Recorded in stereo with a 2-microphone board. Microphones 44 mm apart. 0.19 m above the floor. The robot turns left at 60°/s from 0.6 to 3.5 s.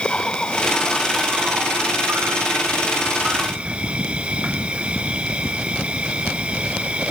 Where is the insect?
20° left; by 7.1 s 155° right.